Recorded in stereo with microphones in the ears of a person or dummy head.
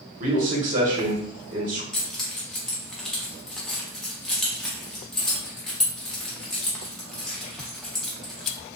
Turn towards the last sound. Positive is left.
turn(degrees=5)  # may be behind; listen again after turning